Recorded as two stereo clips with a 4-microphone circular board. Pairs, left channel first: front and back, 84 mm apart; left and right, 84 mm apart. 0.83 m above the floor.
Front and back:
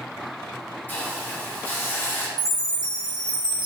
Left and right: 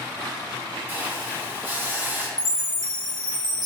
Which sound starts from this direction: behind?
A chime, at 2.4 s.